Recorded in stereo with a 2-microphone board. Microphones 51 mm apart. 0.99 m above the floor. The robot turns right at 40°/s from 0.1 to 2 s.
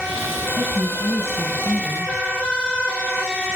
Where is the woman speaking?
145° right, 6.5 m; by 2.1 s 90° right, 6.5 m.